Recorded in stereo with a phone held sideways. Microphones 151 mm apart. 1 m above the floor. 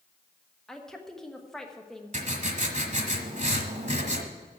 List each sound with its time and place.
0.7 s a woman speaking: centre (ahead or behind), 1.3 m
2.1 s writing: 50° right (ahead or behind), 1.3 m